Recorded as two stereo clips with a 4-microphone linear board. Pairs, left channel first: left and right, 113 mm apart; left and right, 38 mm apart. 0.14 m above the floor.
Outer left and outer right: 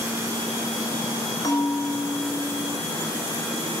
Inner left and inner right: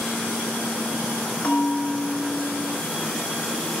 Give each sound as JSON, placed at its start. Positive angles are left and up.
{"t": 1.4, "sound": "a bell", "side_deg": 35, "distance_m": 1.1}